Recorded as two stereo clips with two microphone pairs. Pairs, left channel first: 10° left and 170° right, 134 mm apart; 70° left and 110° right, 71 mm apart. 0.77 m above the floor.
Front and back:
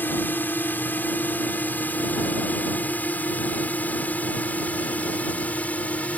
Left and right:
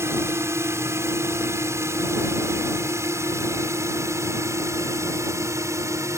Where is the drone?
65° right; by 6.2 s 70° right.